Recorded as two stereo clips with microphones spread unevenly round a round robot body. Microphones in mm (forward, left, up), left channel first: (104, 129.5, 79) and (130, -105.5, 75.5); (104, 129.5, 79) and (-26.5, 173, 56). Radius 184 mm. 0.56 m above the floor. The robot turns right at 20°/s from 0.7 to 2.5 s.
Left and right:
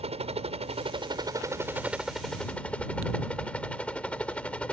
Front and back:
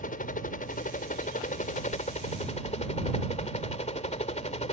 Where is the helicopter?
25° right; by 4.7 s 10° left.